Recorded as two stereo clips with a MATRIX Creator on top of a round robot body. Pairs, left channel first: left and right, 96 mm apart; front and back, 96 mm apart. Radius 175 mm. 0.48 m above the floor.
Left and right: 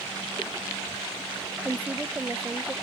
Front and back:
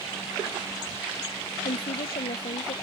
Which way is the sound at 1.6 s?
15° right.